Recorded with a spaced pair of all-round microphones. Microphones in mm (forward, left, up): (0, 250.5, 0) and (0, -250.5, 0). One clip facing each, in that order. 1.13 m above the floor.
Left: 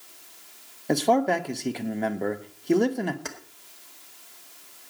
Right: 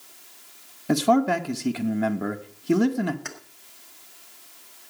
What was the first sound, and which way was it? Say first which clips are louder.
A man speaking: right 2 dB; 25° right (ahead or behind).